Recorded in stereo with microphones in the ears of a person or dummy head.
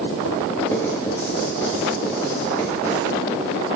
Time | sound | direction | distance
0.7 | writing | 10° left (ahead or behind) | 1.1 m